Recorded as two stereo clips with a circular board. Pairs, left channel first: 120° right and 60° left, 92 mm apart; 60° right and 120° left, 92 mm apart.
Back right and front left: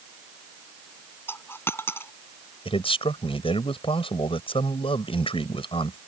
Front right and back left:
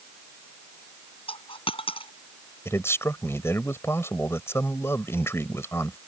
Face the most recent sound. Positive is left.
turn(degrees=-125)